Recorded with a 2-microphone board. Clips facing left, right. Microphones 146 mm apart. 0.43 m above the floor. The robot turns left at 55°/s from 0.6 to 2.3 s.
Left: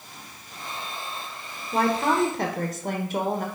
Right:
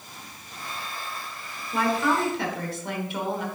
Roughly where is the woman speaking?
Behind left.